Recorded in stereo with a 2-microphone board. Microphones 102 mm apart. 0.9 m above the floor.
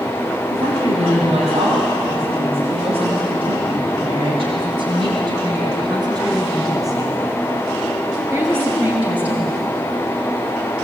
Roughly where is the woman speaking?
Right.